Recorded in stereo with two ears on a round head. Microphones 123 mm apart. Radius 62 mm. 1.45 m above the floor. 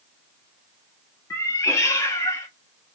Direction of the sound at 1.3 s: 20° left (ahead or behind).